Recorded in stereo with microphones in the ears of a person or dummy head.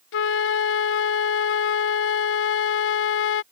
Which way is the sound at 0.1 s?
65° left (ahead or behind).